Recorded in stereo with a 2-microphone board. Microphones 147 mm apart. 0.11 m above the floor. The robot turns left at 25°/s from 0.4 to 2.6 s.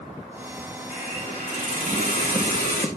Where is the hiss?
140° left, 6.5 m; by 2.9 s 95° left, 6.5 m.